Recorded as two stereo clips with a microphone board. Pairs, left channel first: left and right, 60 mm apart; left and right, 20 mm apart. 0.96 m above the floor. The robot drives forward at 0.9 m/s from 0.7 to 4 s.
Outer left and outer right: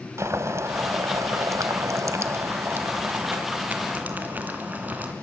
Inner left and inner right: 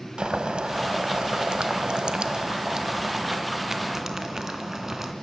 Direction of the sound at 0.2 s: 50° right (ahead or behind).